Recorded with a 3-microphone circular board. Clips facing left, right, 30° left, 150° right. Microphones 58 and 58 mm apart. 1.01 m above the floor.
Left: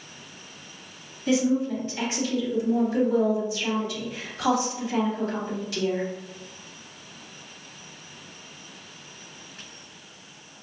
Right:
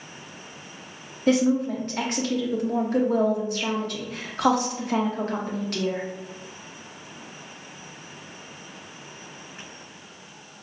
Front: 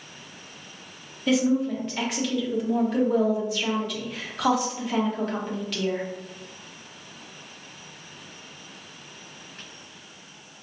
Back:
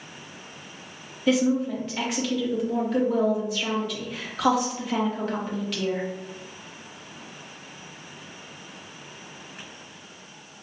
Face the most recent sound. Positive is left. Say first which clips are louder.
# right 2 dB, even
turn(degrees=-60)